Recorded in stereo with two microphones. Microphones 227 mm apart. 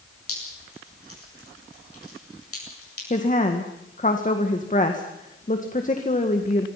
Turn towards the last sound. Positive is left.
turn(degrees=35)  # may be behind; listen again after turning